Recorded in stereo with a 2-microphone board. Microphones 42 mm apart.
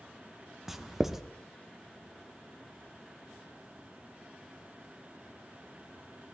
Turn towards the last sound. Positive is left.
turn(degrees=-10)  # may be behind; listen again after turning